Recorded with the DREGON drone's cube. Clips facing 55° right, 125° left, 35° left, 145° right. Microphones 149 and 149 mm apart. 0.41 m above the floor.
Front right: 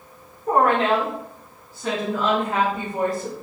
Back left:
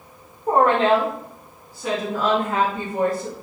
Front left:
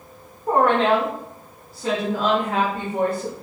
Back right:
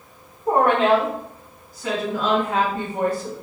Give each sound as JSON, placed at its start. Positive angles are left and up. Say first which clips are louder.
{"t": 0.5, "sound": "a woman speaking", "louder": "back left 2 dB, back right 1 dB", "azimuth_deg": 160, "distance_m": 1.2}